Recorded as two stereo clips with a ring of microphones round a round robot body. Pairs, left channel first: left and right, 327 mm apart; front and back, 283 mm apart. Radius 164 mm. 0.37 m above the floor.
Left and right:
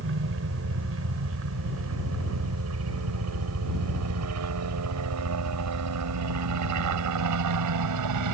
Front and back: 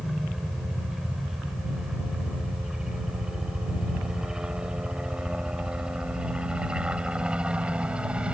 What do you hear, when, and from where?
0.0 s a helicopter: 90° right; by 8.3 s 95° right